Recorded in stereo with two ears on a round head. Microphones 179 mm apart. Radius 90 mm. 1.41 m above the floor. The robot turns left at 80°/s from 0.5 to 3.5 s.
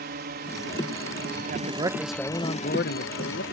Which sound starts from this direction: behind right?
A man speaking, at 1.5 s.